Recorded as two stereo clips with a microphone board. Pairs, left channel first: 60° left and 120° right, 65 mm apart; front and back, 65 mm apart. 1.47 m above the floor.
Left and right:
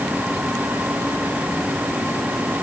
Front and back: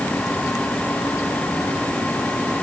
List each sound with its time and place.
Only background noise.